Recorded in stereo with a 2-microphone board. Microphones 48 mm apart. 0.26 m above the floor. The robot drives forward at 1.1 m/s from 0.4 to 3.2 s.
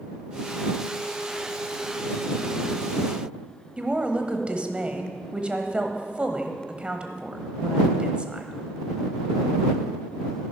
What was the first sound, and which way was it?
A woman speaking, 20° right (ahead or behind).